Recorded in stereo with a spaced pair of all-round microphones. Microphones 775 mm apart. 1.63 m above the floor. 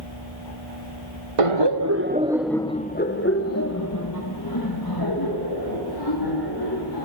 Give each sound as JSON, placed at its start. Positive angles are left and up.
{"t": 1.4, "sound": "laughter", "side_deg": -50, "distance_m": 0.6}